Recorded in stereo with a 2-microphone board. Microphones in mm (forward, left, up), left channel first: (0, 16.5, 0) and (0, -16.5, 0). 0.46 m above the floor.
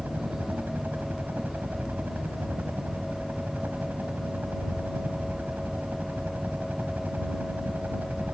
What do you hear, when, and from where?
0.0 s a helicopter: 60° right (ahead or behind)